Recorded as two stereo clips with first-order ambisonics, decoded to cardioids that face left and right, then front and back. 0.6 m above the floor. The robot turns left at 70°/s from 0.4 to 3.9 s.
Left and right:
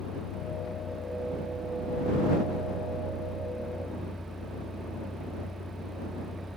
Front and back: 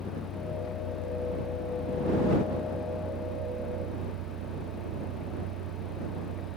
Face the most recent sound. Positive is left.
turn(degrees=175)